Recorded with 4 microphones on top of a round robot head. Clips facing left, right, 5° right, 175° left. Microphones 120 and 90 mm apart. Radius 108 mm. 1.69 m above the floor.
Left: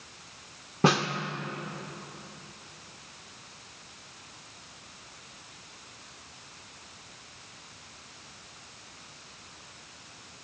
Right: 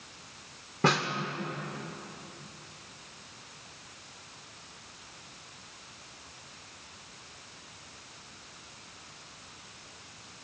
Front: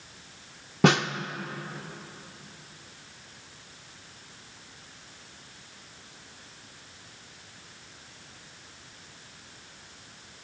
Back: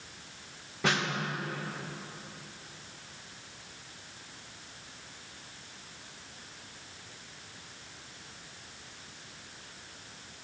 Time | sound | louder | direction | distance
0.8 | a snare drum | left 3 dB, front 8 dB | 15° left | 0.7 m